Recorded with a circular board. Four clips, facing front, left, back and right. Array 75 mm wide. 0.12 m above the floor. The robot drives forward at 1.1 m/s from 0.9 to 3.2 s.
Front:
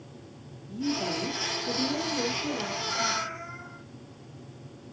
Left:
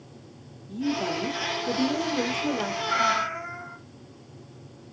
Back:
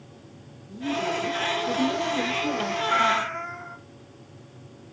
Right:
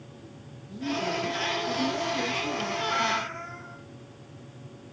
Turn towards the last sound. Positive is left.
turn(degrees=155)